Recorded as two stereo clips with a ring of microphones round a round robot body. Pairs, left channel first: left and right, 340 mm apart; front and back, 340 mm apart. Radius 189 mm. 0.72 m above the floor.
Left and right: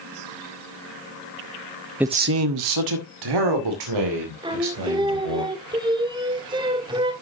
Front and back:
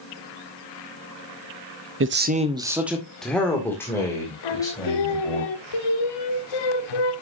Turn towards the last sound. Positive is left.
turn(degrees=-15)